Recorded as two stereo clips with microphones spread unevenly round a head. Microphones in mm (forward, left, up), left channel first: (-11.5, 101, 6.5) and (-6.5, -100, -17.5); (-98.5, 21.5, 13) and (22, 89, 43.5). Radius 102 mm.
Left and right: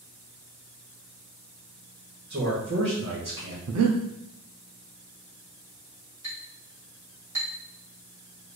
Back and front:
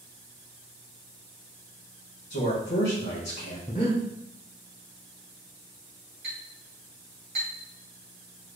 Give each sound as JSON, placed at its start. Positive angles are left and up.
{"t": 2.3, "sound": "a man speaking", "azimuth_deg": -130, "distance_m": 1.0}
{"t": 3.7, "sound": "breathing", "azimuth_deg": -85, "distance_m": 0.6}
{"t": 6.2, "sound": "a clink", "azimuth_deg": -10, "distance_m": 1.9}